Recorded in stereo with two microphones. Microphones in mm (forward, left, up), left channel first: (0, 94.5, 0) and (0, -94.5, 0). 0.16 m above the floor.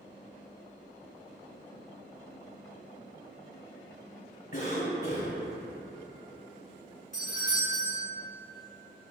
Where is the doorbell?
40° left (ahead or behind), 1.9 m.